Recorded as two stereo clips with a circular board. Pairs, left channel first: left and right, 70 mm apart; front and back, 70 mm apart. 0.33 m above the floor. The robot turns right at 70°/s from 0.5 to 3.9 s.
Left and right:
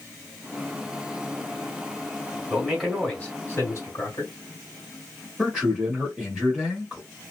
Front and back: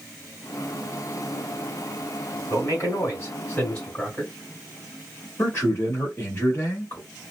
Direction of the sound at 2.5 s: 15° right.